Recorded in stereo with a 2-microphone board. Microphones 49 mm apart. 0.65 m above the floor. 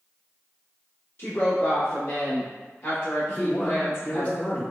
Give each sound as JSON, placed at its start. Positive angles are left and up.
{"t": 1.2, "sound": "a woman speaking", "side_deg": 45, "distance_m": 1.1}
{"t": 3.3, "sound": "a man speaking", "side_deg": 30, "distance_m": 0.8}